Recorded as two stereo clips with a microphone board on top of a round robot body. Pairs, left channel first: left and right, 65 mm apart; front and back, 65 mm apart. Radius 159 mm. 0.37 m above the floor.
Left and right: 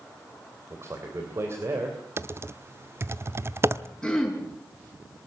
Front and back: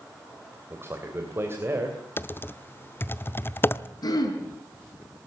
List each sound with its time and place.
0.7 s a man speaking: 130° right, 3 m
2.2 s typing on a keyboard: 50° right, 1.0 m
4.0 s throat clearing: 10° left, 6.5 m